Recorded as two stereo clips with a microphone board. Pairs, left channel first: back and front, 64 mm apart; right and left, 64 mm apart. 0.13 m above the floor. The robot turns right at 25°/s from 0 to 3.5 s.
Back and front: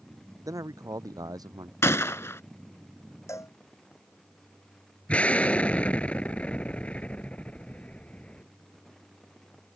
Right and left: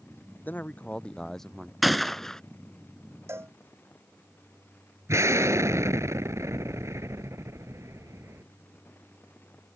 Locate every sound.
0.5 s a man speaking: 30° right; by 1.7 s straight ahead
1.8 s a gunshot: straight behind; by 2.4 s 165° right
3.3 s a cowbell: 135° left; by 3.5 s 140° left
5.1 s an explosion: 115° left